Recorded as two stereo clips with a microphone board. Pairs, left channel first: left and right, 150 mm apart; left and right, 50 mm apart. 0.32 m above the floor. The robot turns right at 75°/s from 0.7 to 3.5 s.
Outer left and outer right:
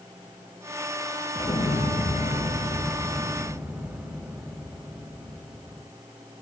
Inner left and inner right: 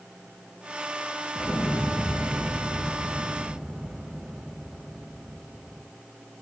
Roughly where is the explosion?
Ahead left.